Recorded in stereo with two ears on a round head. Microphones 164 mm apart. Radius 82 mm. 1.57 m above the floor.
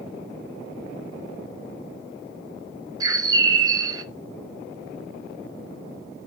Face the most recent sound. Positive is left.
turn(degrees=-20)  # may be behind; listen again after turning